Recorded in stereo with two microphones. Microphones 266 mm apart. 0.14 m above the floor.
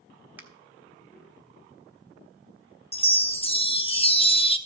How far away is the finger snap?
About 0.9 m.